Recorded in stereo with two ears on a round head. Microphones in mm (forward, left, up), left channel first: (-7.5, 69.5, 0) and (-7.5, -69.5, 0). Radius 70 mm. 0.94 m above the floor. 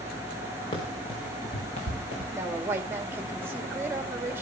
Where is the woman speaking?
15° right (ahead or behind), 2.5 m.